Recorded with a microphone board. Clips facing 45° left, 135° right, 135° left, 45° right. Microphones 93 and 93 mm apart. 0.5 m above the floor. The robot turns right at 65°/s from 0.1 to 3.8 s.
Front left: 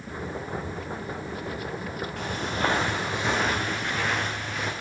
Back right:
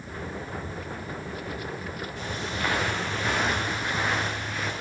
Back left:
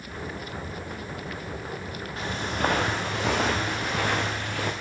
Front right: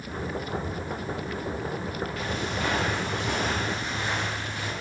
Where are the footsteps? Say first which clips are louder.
Front left 4 dB, back left 5 dB; 75° left, 3 m; by 4.7 s 130° left, 2.5 m.